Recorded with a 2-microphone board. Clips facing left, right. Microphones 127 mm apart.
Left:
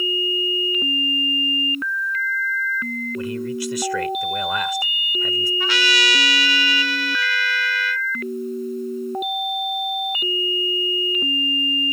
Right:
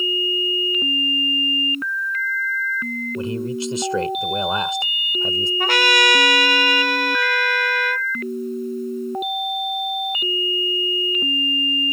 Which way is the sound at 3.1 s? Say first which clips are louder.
Right 2 dB; 25° right (ahead or behind).